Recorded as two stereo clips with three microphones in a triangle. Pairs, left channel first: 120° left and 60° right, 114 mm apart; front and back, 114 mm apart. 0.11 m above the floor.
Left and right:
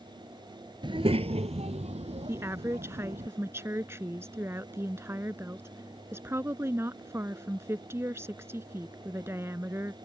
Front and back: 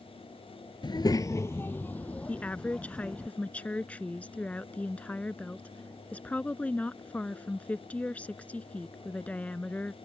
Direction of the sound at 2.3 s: 60° right.